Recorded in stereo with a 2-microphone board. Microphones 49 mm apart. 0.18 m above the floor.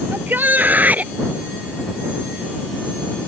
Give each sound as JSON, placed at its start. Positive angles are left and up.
{"t": 0.1, "sound": "a shout", "side_deg": -45}